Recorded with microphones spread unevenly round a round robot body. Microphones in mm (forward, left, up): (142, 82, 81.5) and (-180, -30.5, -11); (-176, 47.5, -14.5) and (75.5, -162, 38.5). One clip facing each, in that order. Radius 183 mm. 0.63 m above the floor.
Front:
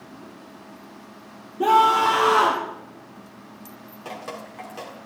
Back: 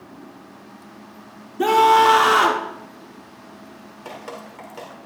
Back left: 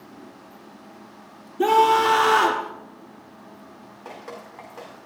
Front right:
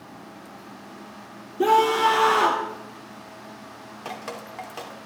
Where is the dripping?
75° right, 2 m.